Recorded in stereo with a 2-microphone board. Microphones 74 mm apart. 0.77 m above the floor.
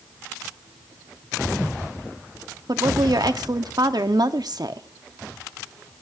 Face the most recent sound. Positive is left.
turn(degrees=-65)  # may be behind; listen again after turning